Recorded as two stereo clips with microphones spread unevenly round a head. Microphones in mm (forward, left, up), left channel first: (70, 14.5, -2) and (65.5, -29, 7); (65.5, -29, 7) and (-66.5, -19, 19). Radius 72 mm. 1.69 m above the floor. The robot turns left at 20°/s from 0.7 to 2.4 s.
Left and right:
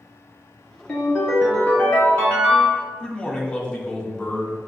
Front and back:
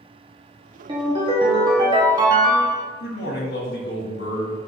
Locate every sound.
0.9 s a ringtone: 170° left, 0.8 m; by 2.9 s 140° left, 0.8 m
3.0 s a man speaking: 5° right, 0.9 m